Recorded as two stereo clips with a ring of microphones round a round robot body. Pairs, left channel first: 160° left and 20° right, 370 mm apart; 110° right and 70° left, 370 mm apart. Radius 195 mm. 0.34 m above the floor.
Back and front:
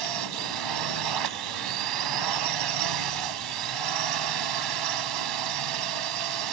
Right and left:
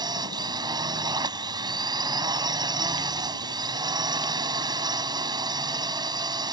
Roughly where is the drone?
Ahead.